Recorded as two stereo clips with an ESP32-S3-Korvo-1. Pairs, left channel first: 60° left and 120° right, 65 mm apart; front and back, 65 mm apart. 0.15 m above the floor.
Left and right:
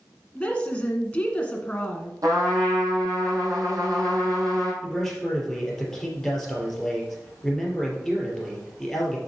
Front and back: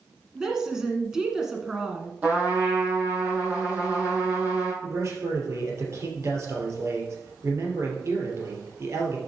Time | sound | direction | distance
0.3 | a woman speaking | 105° left | 1.5 m
2.2 | a trumpet | 115° right | 4 m
4.8 | a man speaking | 145° left | 3 m